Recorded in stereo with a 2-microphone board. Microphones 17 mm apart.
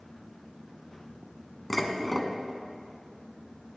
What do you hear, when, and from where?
1.7 s dishes clattering: 10° left (ahead or behind), 1.0 m